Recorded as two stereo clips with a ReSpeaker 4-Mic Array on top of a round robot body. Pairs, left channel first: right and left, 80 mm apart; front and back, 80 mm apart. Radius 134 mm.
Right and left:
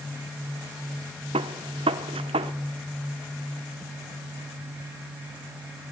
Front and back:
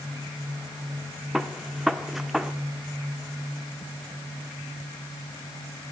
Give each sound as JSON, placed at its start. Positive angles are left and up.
{"t": 1.3, "sound": "a gunshot", "azimuth_deg": 95, "distance_m": 0.6}